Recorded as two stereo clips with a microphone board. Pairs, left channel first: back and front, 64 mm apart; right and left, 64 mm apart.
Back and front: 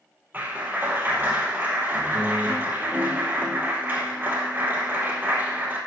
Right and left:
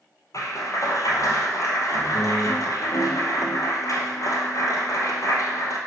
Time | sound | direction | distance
0.3 | a clap | 60° right | 2.5 m